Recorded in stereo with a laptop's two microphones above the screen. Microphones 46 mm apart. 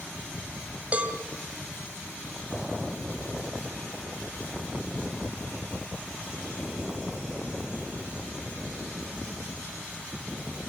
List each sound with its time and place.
0.9 s a cowbell: 30° right (ahead or behind), 2.5 m